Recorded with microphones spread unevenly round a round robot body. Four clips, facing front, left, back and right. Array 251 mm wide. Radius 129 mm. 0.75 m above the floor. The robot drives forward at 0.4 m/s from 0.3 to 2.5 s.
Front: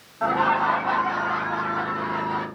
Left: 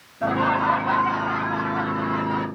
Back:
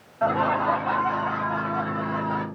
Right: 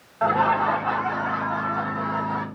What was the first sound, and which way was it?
Laughter, 90° right.